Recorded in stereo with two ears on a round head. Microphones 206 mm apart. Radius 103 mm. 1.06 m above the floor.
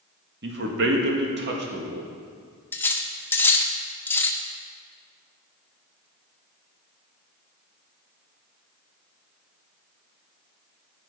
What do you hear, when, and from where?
0.4 s a man speaking: 55° right (ahead or behind), 1.8 m
2.7 s cutlery clinking: 10° left (ahead or behind), 0.8 m